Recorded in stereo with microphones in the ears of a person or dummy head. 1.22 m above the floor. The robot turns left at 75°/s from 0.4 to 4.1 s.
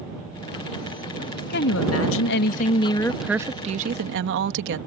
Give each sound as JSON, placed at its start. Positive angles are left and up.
{"t": 1.5, "sound": "a woman speaking", "azimuth_deg": 130}